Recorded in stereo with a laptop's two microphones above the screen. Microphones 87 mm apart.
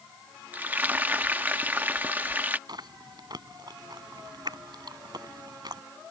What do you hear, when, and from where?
0.5 s frying: 20° right (ahead or behind)
2.7 s chewing: 60° right (ahead or behind)